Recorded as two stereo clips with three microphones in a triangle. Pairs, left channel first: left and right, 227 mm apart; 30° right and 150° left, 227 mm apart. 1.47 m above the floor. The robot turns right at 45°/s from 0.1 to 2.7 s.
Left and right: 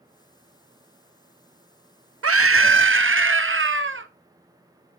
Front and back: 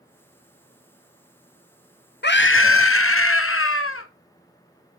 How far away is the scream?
About 0.6 m.